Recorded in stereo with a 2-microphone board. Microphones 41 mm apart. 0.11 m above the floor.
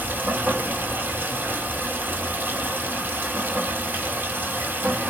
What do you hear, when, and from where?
0.0 s running water: 55° right (ahead or behind), 1.5 m